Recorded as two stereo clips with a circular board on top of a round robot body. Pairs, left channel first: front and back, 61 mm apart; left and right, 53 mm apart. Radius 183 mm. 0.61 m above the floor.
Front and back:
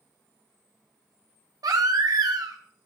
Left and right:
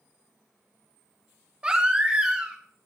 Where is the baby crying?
160° right, 0.7 m.